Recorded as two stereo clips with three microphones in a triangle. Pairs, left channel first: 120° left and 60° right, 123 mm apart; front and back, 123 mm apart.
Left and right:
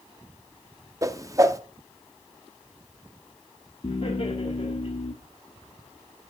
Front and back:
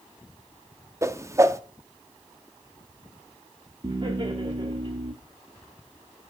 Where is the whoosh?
115° right, 0.6 m.